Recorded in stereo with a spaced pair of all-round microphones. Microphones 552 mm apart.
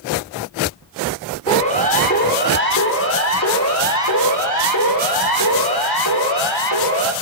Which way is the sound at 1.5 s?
10° left (ahead or behind).